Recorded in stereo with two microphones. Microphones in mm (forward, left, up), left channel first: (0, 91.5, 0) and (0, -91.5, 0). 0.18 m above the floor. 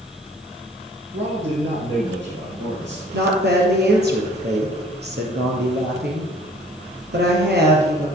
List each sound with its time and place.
1.1 s a man speaking: 80° right, 5.5 m
3.1 s a woman speaking: 65° right (ahead or behind), 3.5 m